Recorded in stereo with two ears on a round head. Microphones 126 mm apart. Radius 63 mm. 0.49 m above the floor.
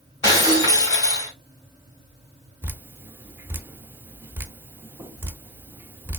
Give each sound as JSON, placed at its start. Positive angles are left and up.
{"t": 0.2, "sound": "breaking glass", "side_deg": 25, "distance_m": 1.8}
{"t": 2.6, "sound": "dripping", "side_deg": -15, "distance_m": 0.5}